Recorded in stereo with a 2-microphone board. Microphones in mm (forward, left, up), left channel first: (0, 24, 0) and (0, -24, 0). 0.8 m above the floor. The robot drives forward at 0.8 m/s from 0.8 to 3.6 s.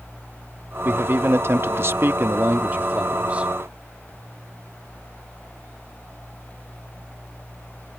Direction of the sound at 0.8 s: 45° right (ahead or behind).